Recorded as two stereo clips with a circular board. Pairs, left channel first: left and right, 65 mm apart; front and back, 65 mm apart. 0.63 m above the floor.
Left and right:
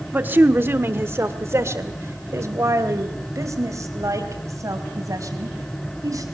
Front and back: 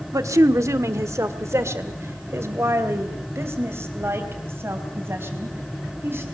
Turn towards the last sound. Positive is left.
turn(degrees=-125)